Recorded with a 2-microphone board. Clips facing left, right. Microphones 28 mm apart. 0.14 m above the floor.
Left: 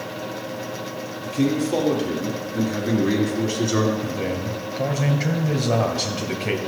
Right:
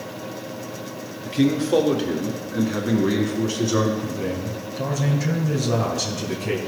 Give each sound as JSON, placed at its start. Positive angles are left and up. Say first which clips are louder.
{"t": 1.2, "sound": "a man speaking", "louder": "right 2 dB", "side_deg": -45, "distance_m": 2.0}
{"t": 4.0, "sound": "a man speaking", "louder": "left 1 dB", "side_deg": 35, "distance_m": 2.0}